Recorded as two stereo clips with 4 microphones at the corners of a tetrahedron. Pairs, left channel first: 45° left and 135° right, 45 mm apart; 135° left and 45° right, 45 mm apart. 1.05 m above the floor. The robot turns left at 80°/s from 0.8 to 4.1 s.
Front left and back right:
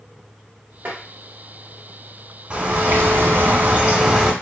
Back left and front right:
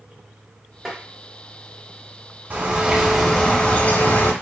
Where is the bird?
85° right, 0.8 m; by 4.3 s 150° left, 0.8 m.